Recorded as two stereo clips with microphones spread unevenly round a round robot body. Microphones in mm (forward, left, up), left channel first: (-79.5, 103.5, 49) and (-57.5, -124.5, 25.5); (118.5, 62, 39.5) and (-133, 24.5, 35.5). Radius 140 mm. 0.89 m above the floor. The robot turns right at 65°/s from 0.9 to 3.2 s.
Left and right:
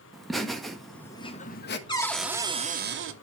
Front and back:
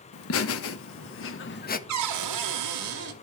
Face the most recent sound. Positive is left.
turn(degrees=-110)